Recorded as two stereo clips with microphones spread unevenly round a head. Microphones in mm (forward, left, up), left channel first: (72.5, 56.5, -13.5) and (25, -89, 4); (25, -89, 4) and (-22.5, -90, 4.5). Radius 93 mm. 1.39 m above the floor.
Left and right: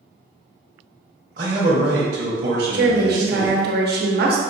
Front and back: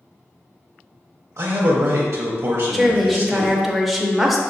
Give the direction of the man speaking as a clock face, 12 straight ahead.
5 o'clock.